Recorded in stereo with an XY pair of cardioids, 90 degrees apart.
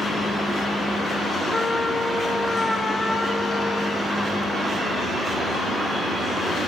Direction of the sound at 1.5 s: 20° left.